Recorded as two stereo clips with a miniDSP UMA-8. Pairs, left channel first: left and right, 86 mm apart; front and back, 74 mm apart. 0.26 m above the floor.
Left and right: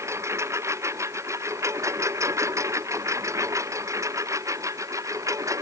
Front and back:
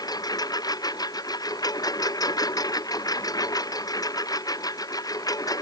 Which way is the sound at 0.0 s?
30° right.